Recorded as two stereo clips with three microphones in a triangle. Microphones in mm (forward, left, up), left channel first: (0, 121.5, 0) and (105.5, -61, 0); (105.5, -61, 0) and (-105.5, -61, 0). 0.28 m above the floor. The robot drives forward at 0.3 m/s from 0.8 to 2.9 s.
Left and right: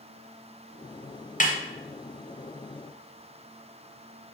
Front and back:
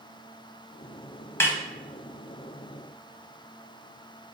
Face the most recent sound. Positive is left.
turn(degrees=125)